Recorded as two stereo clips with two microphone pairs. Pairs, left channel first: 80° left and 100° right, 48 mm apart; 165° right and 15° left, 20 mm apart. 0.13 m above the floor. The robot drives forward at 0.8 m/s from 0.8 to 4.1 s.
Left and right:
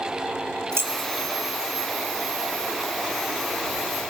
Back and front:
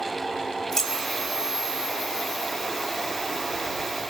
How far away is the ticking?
I don't hear ticking.